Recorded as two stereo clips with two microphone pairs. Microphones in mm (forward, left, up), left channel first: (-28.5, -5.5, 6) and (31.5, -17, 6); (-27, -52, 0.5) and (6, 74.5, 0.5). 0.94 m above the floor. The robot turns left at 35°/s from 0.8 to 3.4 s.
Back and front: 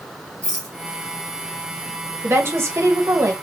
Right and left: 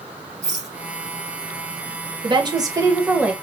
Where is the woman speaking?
35° left, 0.9 m; by 3.3 s 5° right, 0.9 m.